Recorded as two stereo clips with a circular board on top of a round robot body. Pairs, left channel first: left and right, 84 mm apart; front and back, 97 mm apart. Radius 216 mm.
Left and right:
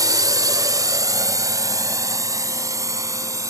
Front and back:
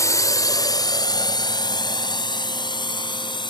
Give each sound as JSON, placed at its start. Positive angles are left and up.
{"t": 0.0, "sound": "a drone", "azimuth_deg": -50}